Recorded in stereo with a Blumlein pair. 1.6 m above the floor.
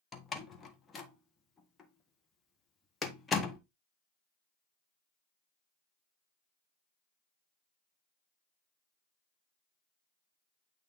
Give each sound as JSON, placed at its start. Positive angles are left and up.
{"t": 0.1, "sound": "a door slam", "azimuth_deg": 15, "distance_m": 1.2}